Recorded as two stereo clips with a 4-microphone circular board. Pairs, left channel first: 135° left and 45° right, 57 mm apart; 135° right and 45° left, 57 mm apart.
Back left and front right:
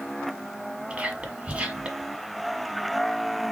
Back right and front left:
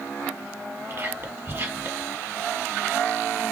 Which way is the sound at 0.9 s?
15° left.